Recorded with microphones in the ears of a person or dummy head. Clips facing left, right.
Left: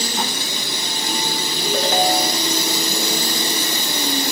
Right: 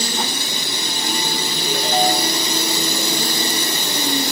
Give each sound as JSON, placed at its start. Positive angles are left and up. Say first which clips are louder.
{"t": 1.6, "sound": "a ringtone", "louder": "left 1 dB", "side_deg": 75, "distance_m": 2.5}